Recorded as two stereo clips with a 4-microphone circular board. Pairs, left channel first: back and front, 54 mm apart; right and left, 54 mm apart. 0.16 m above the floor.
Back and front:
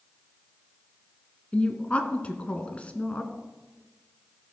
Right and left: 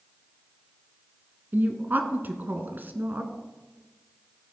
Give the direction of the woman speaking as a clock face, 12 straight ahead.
8 o'clock.